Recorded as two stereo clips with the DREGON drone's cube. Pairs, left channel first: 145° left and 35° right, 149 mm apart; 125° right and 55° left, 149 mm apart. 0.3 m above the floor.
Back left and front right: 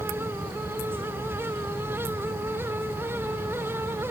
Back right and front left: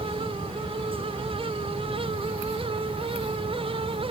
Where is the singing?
I don't hear singing.